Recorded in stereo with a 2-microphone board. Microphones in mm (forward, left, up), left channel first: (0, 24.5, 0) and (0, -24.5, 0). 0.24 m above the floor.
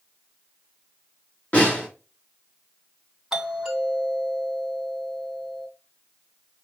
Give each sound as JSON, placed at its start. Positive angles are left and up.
{"t": 1.5, "sound": "a snare drum", "side_deg": 30, "distance_m": 4.0}
{"t": 3.3, "sound": "a doorbell", "side_deg": -10, "distance_m": 3.0}